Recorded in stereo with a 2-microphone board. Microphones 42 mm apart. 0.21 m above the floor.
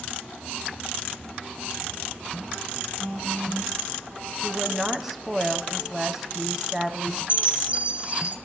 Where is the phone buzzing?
60° right (ahead or behind), 4.5 m.